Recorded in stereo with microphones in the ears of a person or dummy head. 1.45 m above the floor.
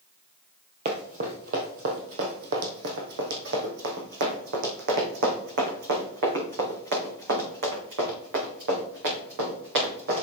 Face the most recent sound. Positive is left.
turn(degrees=-65)  # may be behind; listen again after turning